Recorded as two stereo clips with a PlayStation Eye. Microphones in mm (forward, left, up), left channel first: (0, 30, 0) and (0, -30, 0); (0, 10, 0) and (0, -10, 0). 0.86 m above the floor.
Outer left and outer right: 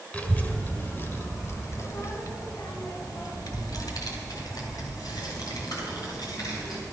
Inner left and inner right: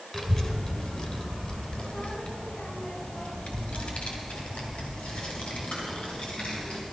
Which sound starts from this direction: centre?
A child speaking, at 0.1 s.